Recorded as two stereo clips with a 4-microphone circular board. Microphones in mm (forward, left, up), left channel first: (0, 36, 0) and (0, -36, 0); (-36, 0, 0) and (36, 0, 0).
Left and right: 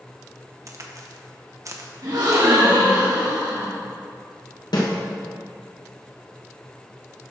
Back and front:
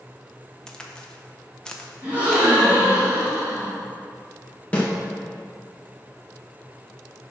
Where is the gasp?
70° right, 3 m.